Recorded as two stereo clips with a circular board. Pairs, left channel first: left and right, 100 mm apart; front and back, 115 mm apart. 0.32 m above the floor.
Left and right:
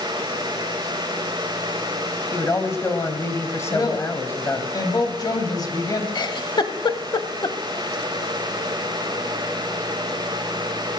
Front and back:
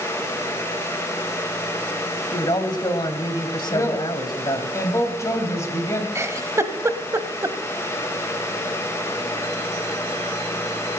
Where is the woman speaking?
55° left, 2 m.